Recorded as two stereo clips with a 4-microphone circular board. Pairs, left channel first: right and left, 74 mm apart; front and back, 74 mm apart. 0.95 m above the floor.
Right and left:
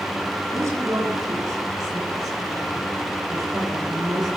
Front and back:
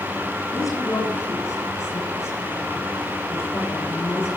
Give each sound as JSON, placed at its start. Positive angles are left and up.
{"t": 0.5, "sound": "a woman speaking", "azimuth_deg": 45, "distance_m": 9.5}